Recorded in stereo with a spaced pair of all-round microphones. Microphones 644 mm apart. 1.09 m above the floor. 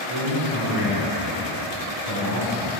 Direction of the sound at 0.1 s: 50° right (ahead or behind).